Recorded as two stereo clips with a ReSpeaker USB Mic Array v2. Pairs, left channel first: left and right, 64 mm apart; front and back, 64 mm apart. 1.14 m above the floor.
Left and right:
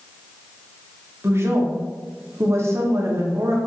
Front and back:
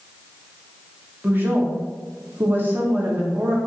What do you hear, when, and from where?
1.2 s a woman speaking: 125° right, 0.9 m